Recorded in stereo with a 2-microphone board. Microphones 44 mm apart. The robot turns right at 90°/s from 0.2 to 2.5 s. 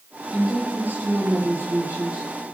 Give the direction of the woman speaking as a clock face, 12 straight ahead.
6 o'clock.